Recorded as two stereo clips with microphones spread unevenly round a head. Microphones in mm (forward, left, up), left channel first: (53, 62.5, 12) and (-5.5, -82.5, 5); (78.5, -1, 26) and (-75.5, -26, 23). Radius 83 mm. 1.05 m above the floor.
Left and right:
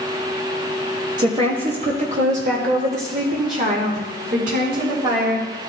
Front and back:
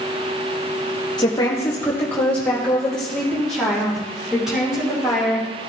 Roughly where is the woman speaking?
Ahead right.